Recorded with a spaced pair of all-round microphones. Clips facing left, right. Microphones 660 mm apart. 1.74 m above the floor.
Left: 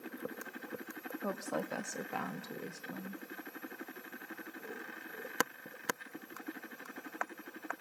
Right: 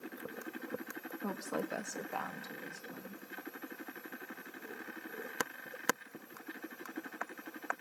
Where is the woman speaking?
Centre (ahead or behind), 0.8 m; by 3.2 s 75° left (ahead or behind), 1.6 m.